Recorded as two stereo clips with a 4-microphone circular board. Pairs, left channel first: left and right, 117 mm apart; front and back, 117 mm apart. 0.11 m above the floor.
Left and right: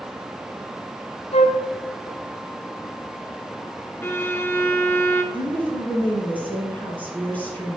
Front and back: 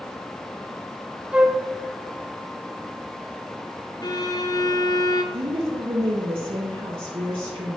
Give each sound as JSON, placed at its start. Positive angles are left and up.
{"t": 1.3, "sound": "a flute", "azimuth_deg": 100, "distance_m": 0.6}
{"t": 4.0, "sound": "a violin", "azimuth_deg": 30, "distance_m": 0.6}
{"t": 5.3, "sound": "a woman speaking", "azimuth_deg": 160, "distance_m": 2.5}